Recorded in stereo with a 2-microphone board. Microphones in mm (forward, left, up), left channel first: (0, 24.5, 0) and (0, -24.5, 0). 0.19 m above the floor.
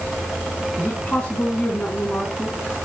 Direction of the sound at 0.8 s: 35° left (ahead or behind).